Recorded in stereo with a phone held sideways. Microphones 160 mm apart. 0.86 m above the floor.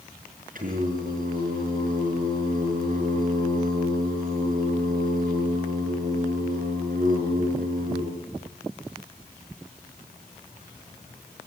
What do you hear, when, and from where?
0.6 s singing: 60° right (ahead or behind), 5.5 m